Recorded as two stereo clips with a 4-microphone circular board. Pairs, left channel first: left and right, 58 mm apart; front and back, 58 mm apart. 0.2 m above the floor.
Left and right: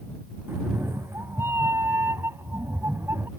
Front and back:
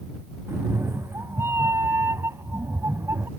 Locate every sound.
0.5 s a cat meowing: 135° right